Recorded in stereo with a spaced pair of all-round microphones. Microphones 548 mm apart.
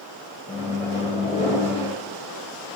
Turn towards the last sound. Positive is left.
turn(degrees=10)  # may be behind; listen again after turning